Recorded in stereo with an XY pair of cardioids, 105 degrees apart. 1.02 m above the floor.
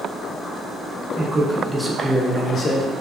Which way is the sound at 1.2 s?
30° right.